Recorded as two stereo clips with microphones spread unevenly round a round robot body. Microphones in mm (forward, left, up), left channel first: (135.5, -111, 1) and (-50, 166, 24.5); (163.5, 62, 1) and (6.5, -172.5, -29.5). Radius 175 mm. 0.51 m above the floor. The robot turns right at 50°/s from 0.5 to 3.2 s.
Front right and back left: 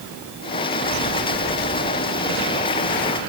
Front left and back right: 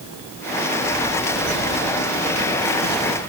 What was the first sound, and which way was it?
Only background noise.